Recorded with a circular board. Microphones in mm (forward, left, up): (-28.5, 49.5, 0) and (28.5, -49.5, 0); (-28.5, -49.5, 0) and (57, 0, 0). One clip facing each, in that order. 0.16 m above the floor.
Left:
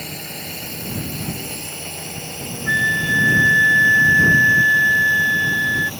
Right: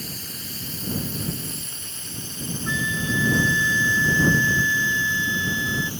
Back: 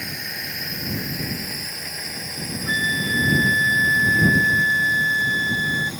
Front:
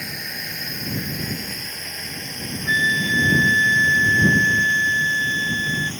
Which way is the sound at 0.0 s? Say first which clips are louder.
Left 5 dB, even; 120° left.